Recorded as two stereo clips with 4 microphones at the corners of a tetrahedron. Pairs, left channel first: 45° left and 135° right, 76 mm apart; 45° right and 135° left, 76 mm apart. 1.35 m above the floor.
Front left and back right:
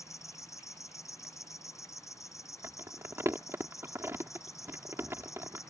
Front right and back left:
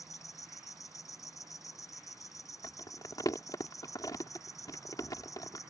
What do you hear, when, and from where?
0.0 s an insect: straight ahead
2.6 s crumpling: 80° right